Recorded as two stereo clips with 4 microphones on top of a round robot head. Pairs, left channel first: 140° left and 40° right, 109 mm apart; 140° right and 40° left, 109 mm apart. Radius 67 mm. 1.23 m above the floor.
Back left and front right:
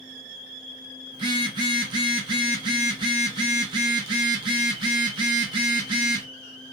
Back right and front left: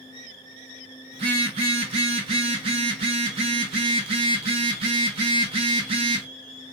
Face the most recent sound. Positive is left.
turn(degrees=5)